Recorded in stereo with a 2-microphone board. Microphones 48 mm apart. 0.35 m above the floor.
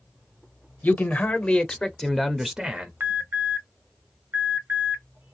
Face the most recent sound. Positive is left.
turn(degrees=-50)  # may be behind; listen again after turning